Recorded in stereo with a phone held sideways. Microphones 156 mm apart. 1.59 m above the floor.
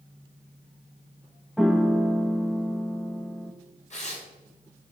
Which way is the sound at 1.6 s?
Centre (ahead or behind).